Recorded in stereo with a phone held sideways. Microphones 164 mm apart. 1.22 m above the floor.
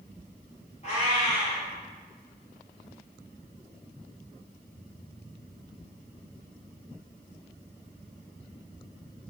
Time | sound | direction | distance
0.8 | a cat meowing | 40° left (ahead or behind) | 1.7 m